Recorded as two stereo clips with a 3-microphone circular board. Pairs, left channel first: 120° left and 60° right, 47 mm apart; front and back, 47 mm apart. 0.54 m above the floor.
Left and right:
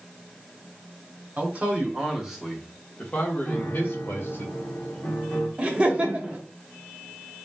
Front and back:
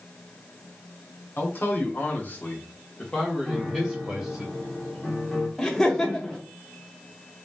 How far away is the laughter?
About 0.7 m.